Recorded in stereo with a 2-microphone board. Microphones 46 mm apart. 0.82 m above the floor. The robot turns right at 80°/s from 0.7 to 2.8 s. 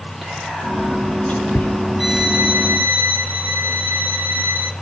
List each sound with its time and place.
0.2 s whispering: 5° right (ahead or behind), 1.8 m; by 1.7 s 60° left (ahead or behind), 1.8 m
2.0 s a violin: 175° right, 1.2 m; by 4.7 s 110° right, 1.2 m